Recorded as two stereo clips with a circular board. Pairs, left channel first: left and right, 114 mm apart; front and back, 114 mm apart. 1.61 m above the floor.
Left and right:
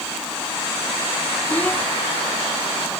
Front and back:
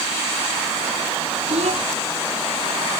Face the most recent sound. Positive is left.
turn(degrees=165)